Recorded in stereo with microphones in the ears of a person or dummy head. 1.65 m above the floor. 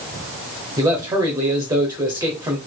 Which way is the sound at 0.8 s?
20° right (ahead or behind).